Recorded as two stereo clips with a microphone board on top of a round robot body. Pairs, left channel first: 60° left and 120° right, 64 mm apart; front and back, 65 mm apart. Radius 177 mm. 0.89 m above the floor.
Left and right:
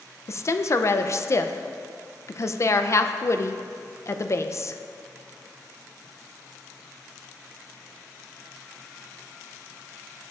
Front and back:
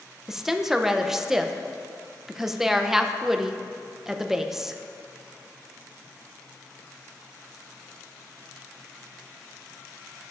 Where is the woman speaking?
95° left, 0.5 m.